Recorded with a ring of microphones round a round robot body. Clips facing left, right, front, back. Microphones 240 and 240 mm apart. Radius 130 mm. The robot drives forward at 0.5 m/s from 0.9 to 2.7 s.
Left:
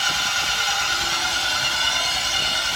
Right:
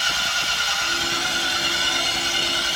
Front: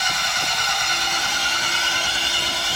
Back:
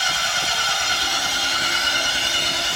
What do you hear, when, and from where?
0.0 s an engine running: 125° left, 3 m; by 2.8 s 135° left, 3.5 m